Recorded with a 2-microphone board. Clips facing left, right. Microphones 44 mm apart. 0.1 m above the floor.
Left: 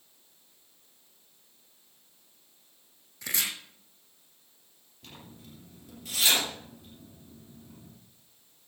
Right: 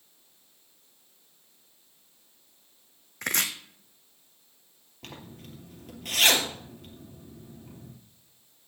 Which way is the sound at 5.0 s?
55° right (ahead or behind).